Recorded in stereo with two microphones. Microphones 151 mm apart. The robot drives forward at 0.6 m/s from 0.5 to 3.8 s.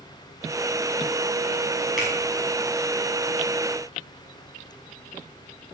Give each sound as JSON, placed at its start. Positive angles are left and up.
{"t": 2.0, "sound": "a finger snap", "side_deg": -5, "distance_m": 6.0}